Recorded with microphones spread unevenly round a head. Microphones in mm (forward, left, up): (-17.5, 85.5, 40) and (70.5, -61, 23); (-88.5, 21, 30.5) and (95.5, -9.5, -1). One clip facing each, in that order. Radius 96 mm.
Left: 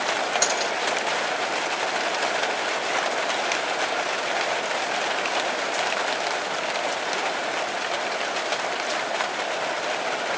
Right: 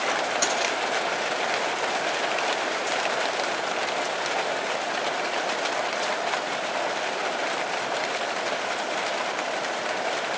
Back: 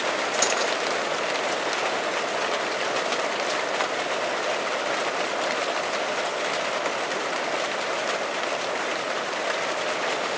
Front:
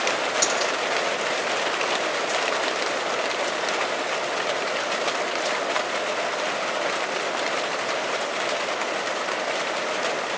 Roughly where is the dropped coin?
Left.